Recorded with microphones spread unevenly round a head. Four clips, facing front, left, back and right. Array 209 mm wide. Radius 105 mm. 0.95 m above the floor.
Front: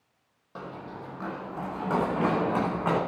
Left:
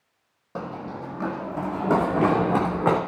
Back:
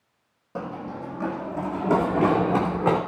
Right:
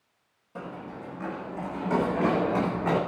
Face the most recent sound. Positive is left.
turn(degrees=130)